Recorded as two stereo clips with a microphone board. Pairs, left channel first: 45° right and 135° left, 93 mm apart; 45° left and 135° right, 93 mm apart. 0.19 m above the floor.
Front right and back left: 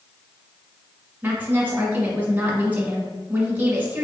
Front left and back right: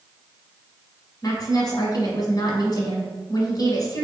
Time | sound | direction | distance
1.2 | a woman speaking | 70° left | 1.6 m